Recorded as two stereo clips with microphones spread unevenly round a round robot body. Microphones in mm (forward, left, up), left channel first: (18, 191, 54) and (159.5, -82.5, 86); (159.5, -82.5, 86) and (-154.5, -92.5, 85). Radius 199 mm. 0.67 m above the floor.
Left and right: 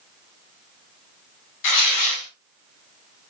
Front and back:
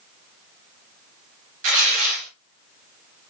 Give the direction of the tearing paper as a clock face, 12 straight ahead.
8 o'clock.